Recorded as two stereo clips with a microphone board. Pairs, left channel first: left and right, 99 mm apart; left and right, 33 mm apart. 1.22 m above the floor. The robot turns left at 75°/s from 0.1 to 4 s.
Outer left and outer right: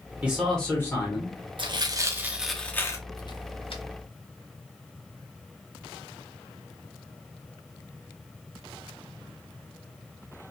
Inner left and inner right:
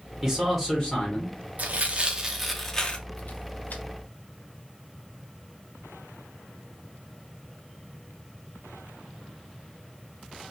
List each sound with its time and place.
0.2 s a man speaking: 165° right, 0.9 m; by 1.4 s 110° left, 0.9 m
1.6 s tearing paper: 55° right (ahead or behind), 0.5 m; by 3.8 s 65° left (ahead or behind), 0.5 m